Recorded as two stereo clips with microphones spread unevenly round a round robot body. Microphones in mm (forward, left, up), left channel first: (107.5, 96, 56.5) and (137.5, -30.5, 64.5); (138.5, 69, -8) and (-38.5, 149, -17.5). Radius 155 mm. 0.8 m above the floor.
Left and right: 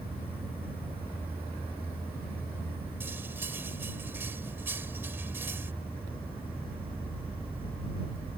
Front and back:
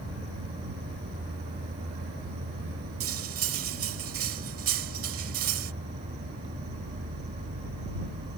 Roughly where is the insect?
Behind.